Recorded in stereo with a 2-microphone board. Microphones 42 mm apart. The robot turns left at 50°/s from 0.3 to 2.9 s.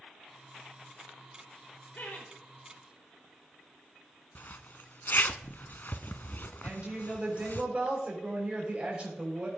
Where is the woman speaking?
25° right (ahead or behind), 6.5 m.